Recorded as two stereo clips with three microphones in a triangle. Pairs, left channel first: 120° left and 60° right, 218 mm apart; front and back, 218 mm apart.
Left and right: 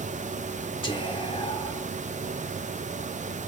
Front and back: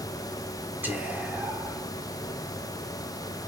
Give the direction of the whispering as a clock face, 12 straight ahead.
8 o'clock.